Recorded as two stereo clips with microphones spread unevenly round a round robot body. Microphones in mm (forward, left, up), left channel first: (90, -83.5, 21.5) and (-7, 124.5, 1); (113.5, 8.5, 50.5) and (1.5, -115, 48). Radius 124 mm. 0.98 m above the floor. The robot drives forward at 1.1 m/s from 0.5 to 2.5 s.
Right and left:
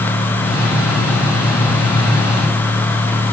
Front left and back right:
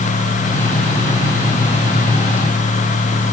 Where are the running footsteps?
No running footsteps in this recording.